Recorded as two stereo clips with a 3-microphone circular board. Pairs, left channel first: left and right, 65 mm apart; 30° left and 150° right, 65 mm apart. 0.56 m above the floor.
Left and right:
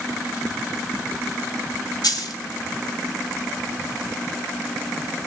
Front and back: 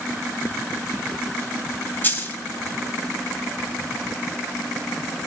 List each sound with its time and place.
2.0 s a dropped coin: 85° left, 1.3 m